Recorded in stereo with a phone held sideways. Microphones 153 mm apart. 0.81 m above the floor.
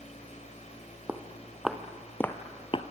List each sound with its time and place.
0.0 s a fan: 45° left (ahead or behind), 4.5 m
1.1 s footsteps: 10° right (ahead or behind), 2 m; by 2.8 s 40° left (ahead or behind), 1.0 m